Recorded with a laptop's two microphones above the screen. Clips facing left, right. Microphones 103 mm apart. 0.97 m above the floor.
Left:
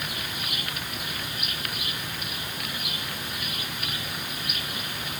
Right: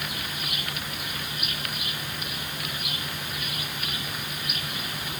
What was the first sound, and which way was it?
Only background noise.